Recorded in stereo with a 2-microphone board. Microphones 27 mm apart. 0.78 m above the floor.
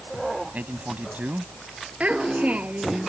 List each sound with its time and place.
0.5 s a man speaking: 85° right
2.0 s a child speaking: 60° right (ahead or behind)